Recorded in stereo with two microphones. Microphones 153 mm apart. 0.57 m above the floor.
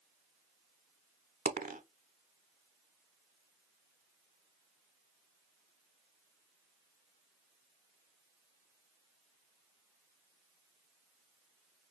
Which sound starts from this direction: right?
A dropped coin, at 1.4 s.